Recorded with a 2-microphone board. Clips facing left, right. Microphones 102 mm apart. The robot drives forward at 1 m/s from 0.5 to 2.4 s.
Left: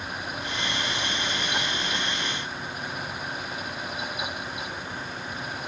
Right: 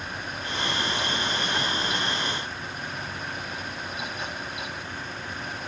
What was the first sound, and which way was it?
Only background noise.